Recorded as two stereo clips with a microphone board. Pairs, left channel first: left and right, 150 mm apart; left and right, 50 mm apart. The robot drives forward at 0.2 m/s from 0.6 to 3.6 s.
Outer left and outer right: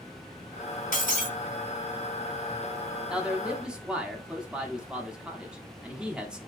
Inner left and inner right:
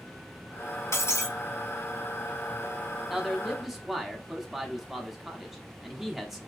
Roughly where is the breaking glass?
Left.